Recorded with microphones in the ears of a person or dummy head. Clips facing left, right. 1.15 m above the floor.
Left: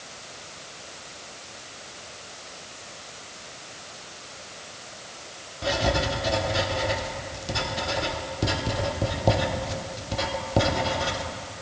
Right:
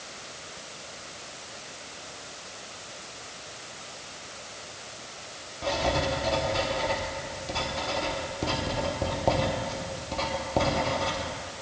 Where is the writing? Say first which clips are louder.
Left 2 dB; 15° left (ahead or behind), 1.0 m.